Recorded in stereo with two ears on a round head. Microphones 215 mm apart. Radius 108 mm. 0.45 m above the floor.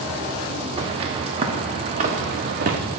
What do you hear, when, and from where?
0.8 s footsteps: 25° right (ahead or behind), 3.5 m; by 2.8 s 40° right (ahead or behind), 2.5 m